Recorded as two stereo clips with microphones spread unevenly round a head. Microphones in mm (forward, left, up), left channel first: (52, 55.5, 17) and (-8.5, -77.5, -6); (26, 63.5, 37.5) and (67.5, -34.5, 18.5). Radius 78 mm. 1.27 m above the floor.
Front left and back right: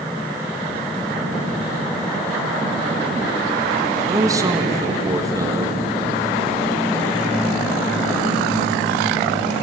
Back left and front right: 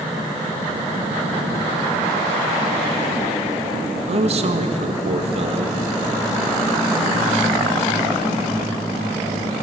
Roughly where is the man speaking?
Ahead right.